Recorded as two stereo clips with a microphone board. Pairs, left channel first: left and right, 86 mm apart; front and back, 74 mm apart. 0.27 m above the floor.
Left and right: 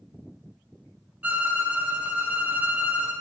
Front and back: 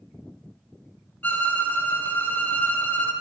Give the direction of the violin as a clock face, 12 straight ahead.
1 o'clock.